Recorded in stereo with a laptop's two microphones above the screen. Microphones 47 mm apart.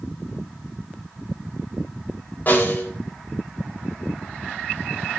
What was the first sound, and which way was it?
A snare drum, 40° left (ahead or behind).